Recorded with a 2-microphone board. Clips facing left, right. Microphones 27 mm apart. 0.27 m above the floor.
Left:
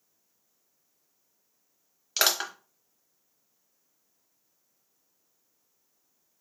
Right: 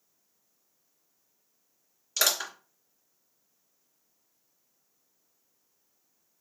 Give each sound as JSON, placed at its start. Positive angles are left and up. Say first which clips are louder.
{"t": 2.2, "sound": "crushing", "louder": "left 2 dB", "side_deg": 45, "distance_m": 1.0}